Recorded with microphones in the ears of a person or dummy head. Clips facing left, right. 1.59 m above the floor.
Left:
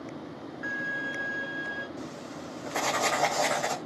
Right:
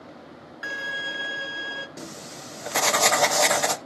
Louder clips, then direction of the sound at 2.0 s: Left 1 dB; 80° right.